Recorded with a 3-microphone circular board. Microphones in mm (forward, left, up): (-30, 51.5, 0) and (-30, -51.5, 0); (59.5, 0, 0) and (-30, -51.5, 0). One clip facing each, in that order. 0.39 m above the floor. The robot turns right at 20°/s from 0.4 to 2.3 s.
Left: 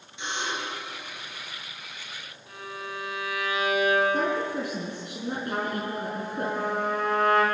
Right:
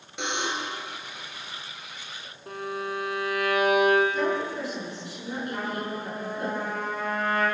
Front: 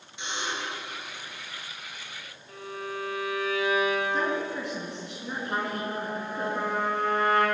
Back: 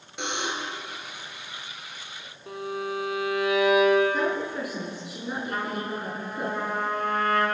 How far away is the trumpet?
About 5.5 m.